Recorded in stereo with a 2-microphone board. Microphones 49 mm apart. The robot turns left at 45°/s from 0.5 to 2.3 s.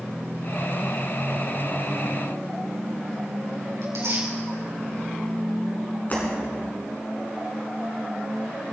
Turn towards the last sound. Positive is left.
turn(degrees=40)  # may be behind; listen again after turning